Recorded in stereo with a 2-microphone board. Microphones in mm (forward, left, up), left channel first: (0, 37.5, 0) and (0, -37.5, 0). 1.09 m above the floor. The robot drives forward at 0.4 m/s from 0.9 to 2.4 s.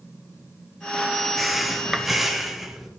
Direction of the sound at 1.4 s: 5° right (ahead or behind).